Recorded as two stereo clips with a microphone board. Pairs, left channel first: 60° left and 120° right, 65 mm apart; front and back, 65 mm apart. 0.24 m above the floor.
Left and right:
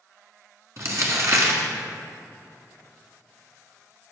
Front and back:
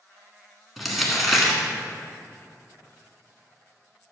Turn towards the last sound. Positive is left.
turn(degrees=-90)